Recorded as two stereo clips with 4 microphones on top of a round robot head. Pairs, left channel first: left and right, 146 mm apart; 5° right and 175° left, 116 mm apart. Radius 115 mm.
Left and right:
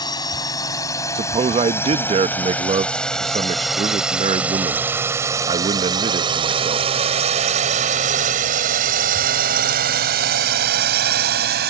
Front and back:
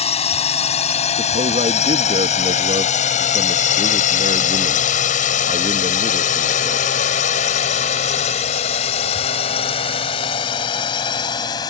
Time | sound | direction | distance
0.0 | a drone | 20° left | ?
1.1 | a man speaking | 140° right | ?